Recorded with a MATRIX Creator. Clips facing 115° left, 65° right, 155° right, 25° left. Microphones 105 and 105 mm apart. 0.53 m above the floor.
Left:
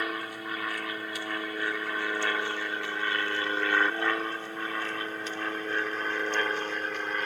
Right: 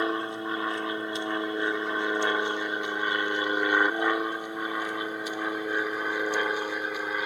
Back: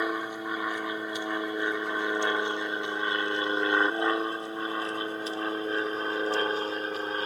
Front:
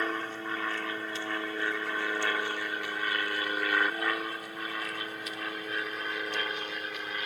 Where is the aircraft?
95° right; by 7.3 s 145° right.